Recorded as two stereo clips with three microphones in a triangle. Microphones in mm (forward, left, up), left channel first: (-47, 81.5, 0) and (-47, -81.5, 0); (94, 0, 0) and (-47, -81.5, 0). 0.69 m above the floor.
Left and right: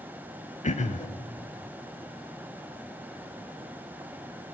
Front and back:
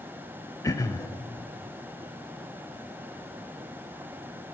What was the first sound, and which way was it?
Throat clearing, 90° left.